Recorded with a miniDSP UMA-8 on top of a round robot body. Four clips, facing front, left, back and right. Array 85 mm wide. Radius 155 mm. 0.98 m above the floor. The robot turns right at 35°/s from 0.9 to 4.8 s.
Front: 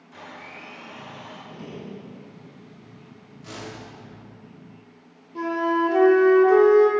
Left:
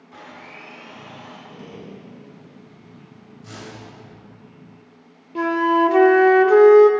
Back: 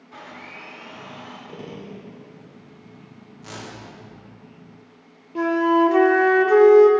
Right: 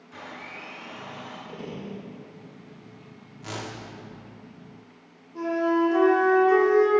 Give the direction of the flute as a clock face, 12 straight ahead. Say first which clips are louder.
Left 6 dB, back 5 dB; 8 o'clock.